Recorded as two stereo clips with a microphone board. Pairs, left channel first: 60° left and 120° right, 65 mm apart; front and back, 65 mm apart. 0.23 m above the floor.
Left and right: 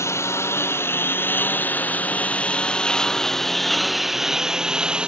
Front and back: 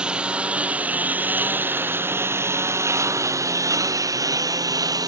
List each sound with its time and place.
0.0 s a lawn mower: 105° left; by 5.1 s 165° left